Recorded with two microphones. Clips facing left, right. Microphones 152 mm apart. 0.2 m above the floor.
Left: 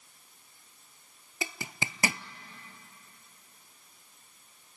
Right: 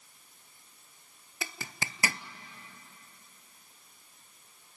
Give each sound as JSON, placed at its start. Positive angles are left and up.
{"t": 1.4, "sound": "a zipper", "side_deg": 20, "distance_m": 0.5}